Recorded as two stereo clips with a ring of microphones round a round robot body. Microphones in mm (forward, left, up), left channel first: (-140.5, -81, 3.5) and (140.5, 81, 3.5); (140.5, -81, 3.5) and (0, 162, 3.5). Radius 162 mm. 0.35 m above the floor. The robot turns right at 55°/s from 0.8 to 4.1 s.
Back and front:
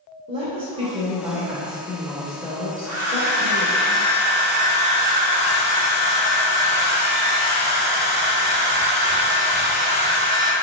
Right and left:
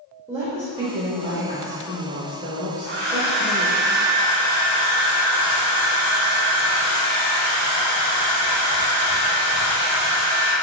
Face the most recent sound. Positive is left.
turn(degrees=140)